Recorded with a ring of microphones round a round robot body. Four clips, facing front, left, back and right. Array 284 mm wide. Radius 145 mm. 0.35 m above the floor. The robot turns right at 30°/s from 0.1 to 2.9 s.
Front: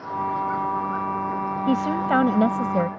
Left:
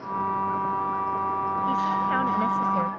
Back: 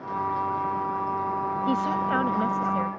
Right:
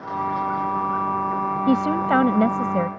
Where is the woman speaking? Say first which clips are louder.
Right 7 dB, front 5 dB; 70° right; by 2.9 s 35° right.